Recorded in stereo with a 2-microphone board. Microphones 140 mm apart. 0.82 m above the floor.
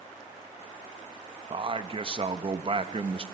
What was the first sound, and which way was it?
A man speaking, 40° right (ahead or behind).